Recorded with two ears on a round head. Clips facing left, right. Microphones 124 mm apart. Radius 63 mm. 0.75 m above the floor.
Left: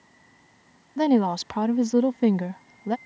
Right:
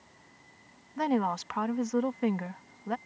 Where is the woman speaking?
35° left (ahead or behind).